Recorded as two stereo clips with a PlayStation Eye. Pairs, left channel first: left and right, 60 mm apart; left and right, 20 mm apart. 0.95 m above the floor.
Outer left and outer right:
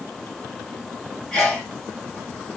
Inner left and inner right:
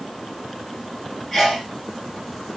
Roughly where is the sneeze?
Centre.